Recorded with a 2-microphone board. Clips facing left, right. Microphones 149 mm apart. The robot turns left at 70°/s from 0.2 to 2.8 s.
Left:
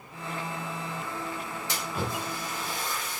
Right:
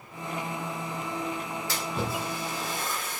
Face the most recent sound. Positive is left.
turn(degrees=-45)  # may be behind; listen again after turning